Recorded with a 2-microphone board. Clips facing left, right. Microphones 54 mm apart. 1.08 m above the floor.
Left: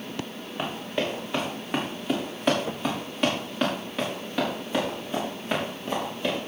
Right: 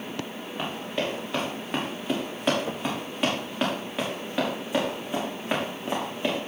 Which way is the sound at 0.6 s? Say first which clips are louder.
Left 1 dB; 5° left (ahead or behind).